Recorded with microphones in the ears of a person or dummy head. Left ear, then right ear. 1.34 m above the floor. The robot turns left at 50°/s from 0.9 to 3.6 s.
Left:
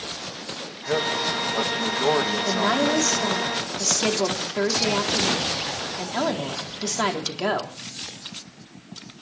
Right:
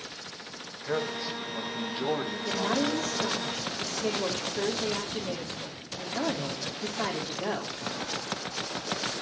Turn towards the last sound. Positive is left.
turn(degrees=80)